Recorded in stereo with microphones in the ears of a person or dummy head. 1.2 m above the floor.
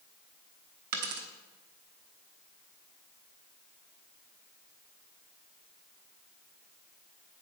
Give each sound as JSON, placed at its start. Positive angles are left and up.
{"t": 0.9, "sound": "a dropped coin", "side_deg": -50, "distance_m": 1.1}